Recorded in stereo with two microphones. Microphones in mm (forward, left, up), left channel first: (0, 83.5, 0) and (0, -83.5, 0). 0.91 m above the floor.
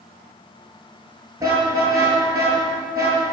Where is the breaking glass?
I don't hear breaking glass.